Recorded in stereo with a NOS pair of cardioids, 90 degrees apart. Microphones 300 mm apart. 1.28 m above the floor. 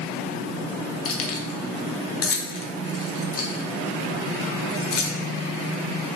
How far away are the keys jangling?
About 0.6 m.